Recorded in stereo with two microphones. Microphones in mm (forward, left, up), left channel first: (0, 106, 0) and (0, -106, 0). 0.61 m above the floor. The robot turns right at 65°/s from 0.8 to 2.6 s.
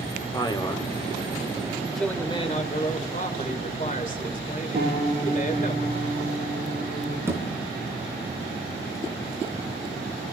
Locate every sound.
0.3 s a man speaking: 20° left (ahead or behind), 1.8 m; by 0.9 s 15° left (ahead or behind), 1.8 m
1.9 s a man speaking: straight ahead, 2 m; by 5.7 s 40° left, 2 m
4.7 s a piano: 35° right (ahead or behind), 8.5 m
7.3 s a thud: 10° right (ahead or behind), 4 m